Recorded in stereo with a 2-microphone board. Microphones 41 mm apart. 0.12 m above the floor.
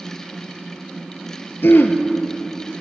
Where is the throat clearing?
60° left (ahead or behind), 0.9 m.